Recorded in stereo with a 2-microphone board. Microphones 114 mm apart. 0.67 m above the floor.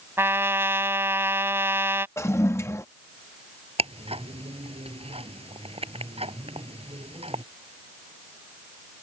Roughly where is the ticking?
Right.